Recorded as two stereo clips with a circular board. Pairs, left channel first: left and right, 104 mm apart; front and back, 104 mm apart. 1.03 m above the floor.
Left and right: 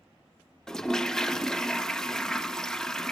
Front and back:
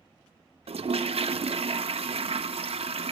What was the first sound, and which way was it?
A toilet flushing, 175° left.